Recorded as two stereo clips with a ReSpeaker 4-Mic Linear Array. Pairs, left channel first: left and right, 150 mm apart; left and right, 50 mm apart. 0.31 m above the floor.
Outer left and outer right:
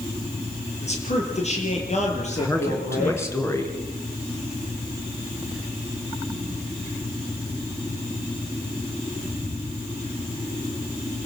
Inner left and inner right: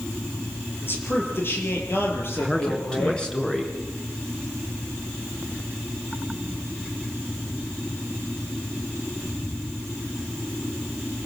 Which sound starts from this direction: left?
A man speaking, at 0.8 s.